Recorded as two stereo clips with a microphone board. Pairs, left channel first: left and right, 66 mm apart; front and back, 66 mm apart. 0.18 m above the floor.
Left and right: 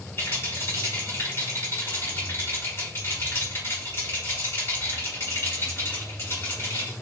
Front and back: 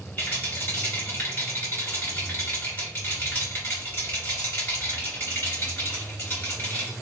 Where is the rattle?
45° left, 1.9 m.